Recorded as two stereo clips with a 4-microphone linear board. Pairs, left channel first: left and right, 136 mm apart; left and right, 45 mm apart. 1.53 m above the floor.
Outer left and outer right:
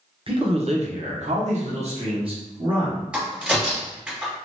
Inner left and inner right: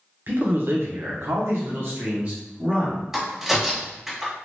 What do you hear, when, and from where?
0.3 s a man speaking: 40° right (ahead or behind), 0.7 m; by 3.0 s 35° right (ahead or behind), 1.2 m
3.1 s a crack: 10° right (ahead or behind), 1.6 m